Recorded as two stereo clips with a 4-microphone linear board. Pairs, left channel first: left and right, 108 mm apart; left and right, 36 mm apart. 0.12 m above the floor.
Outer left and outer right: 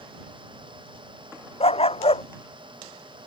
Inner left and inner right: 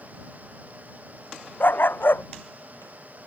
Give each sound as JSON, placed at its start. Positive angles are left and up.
{"t": 1.6, "sound": "a dog barking", "side_deg": 65}